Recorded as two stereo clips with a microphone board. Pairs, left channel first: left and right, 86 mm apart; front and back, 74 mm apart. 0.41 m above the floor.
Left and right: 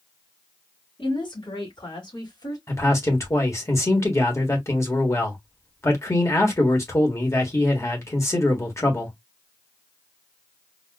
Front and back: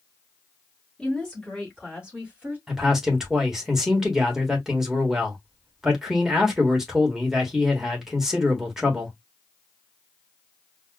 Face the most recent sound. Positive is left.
turn(degrees=100)